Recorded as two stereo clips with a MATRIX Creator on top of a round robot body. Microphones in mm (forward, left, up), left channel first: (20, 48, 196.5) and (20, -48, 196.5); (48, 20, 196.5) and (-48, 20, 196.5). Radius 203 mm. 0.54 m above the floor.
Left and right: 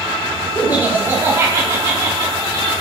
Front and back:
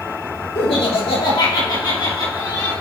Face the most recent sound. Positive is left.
turn(degrees=-45)